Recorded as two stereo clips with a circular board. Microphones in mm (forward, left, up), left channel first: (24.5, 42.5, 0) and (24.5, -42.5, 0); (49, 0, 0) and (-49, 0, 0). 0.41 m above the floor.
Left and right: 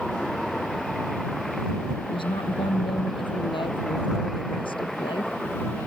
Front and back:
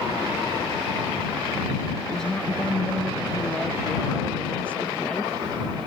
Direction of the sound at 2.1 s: 85° left.